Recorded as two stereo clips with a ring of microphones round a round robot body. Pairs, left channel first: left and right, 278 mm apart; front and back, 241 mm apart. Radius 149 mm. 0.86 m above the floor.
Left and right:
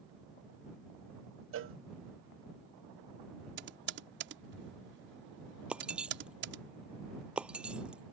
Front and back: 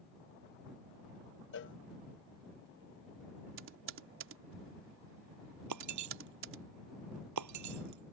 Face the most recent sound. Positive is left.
turn(degrees=-175)